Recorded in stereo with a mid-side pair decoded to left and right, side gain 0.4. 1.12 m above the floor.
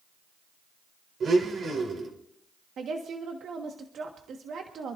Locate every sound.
1.2 s a blender: 55° right, 3.5 m
2.8 s a woman speaking: 65° right, 1.4 m